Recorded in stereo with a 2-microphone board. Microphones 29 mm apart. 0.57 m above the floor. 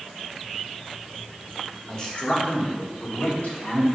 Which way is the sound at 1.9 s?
25° left (ahead or behind).